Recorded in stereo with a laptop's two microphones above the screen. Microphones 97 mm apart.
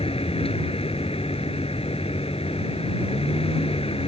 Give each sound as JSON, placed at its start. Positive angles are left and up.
{"t": 0.0, "sound": "a vehicle", "side_deg": 85}